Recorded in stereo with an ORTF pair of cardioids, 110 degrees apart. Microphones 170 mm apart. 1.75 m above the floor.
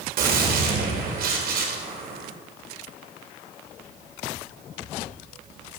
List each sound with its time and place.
0.2 s a gunshot: 60° right, 3 m